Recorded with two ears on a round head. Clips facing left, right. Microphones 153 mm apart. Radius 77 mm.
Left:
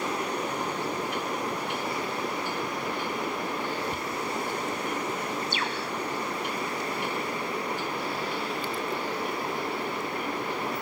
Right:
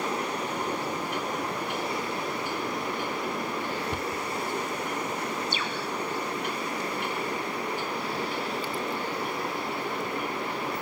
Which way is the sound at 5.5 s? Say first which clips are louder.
Even; 80° right.